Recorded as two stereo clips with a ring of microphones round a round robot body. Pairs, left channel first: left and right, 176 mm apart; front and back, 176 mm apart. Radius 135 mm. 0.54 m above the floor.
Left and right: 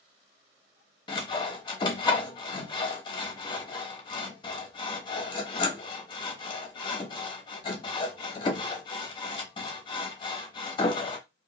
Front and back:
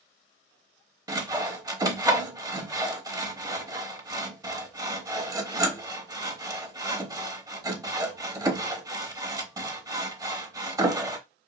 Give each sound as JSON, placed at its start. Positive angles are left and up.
{"t": 1.1, "sound": "sawing", "azimuth_deg": 130, "distance_m": 0.9}